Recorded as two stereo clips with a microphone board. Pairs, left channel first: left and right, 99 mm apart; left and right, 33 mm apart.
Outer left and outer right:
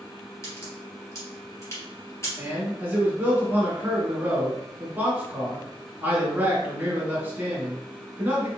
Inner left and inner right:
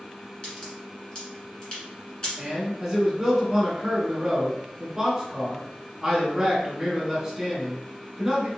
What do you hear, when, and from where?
0.4 s a crack: 30° left (ahead or behind), 1.5 m
2.4 s a man speaking: 20° right (ahead or behind), 1.1 m